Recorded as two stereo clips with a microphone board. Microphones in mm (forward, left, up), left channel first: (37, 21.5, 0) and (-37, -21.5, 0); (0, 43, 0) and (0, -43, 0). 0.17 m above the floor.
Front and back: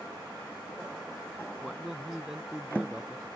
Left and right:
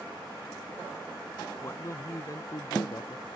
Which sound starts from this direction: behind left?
A man speaking, at 1.6 s.